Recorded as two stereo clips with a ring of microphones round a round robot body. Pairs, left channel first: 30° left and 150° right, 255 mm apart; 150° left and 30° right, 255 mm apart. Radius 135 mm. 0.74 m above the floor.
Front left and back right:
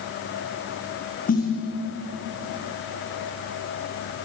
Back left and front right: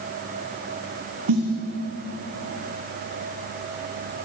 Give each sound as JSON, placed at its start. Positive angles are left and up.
{"t": 1.3, "sound": "a snare drum", "azimuth_deg": -30, "distance_m": 9.5}